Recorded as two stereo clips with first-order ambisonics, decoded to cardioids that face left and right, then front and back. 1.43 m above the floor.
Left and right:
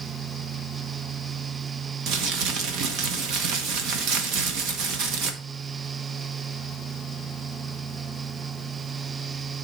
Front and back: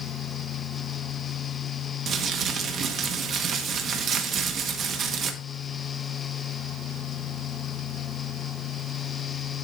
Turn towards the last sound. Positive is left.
turn(degrees=-125)